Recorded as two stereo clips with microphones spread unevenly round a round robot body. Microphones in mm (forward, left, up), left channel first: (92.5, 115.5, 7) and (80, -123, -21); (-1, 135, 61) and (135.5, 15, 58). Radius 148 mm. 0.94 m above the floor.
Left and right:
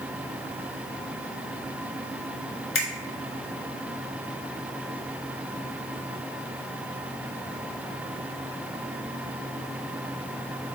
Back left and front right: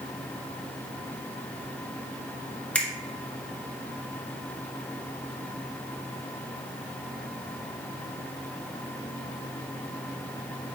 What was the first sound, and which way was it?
A finger snap, 55° left.